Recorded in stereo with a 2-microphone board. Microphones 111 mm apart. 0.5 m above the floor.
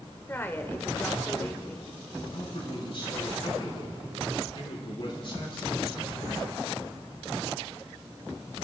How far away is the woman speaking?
About 1.3 m.